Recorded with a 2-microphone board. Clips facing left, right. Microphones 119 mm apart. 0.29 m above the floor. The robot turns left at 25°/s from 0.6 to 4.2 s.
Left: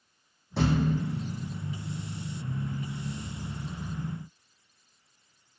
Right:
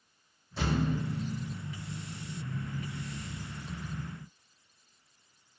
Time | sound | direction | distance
0.6 | a thud | 70° left (ahead or behind) | 4.5 m